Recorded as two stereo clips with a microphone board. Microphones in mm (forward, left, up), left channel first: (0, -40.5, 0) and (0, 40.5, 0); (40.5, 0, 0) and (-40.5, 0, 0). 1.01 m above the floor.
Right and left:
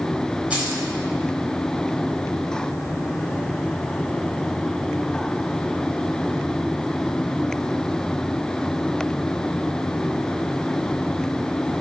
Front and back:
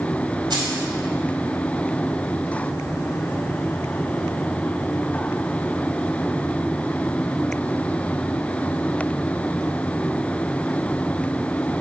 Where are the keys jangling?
165° left, 4 m.